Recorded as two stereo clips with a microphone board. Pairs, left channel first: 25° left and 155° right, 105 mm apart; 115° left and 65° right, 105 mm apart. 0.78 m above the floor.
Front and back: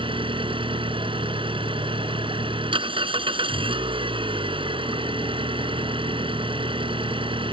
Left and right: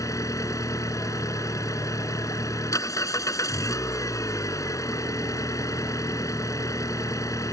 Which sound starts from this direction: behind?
An engine running, at 0.0 s.